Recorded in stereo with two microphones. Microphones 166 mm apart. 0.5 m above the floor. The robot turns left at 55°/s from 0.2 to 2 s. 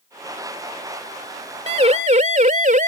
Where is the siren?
35° right (ahead or behind); by 2.9 s 55° right (ahead or behind).